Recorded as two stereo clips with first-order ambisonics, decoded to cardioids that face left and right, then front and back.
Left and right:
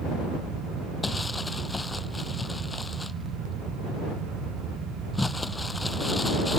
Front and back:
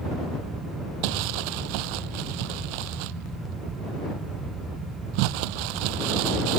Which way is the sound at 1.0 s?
175° left.